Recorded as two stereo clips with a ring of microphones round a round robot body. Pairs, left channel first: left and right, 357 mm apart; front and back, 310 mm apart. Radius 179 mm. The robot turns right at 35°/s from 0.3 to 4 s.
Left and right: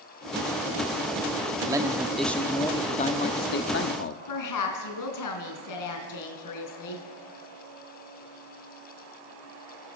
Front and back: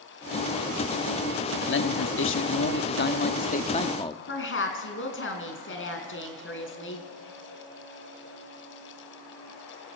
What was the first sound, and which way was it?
A man speaking, 20° right.